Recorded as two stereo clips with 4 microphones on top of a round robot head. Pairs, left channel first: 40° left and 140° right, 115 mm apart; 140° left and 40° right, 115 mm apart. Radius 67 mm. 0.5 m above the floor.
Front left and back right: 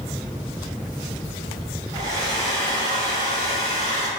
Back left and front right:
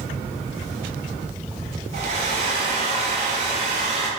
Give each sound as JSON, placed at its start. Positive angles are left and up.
{"t": 1.9, "sound": "a hair dryer", "azimuth_deg": -80, "distance_m": 1.4}